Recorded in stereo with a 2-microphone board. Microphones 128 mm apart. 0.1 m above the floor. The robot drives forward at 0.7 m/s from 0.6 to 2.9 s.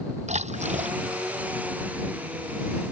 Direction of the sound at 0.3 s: 60° right (ahead or behind).